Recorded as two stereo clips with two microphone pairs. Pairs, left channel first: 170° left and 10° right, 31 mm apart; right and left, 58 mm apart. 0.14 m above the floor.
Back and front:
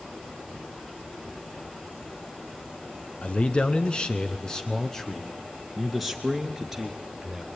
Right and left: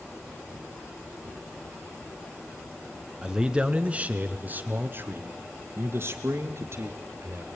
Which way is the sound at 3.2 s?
165° left.